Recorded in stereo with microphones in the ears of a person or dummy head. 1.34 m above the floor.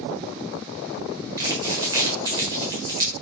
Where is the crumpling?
20° right (ahead or behind), 1.2 m.